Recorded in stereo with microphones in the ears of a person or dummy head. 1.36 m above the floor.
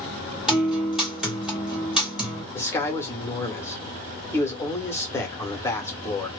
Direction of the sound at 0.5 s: 5° right (ahead or behind).